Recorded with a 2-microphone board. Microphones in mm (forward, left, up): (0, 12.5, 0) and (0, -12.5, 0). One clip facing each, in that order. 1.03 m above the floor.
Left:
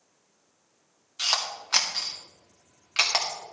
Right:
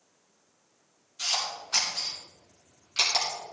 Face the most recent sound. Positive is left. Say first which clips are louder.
# left 3 dB
turn(degrees=75)  # may be behind; listen again after turning